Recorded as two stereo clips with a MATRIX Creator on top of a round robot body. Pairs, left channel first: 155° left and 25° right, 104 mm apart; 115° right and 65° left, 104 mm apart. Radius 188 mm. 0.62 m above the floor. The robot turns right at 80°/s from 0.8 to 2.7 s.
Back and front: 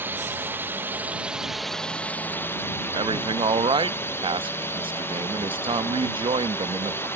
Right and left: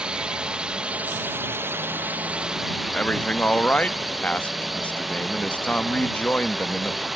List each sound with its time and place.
0.0 s a drone: straight ahead; by 7.2 s 155° left
2.9 s a man speaking: 40° right